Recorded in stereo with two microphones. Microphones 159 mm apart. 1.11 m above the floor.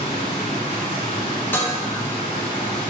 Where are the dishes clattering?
10° left (ahead or behind), 0.7 m.